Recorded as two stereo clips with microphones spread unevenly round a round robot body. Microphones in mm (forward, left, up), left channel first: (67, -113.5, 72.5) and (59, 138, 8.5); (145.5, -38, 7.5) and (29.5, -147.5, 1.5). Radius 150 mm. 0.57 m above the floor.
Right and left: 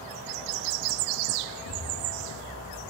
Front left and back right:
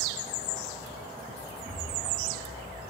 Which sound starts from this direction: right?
An explosion, at 1.6 s.